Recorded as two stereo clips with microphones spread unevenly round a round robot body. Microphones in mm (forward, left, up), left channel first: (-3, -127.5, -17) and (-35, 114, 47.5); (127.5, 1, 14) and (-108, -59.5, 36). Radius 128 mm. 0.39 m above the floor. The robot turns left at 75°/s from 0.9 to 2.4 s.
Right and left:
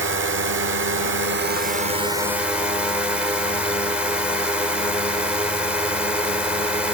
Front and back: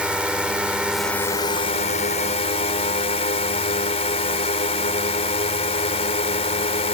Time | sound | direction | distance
0.0 | a drone | 100° left | ?